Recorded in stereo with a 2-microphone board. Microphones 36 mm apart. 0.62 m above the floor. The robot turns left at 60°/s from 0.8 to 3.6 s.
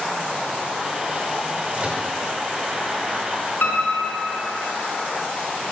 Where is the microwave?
35° right (ahead or behind), 1.9 m; by 2.1 s 20° right (ahead or behind), 1.9 m.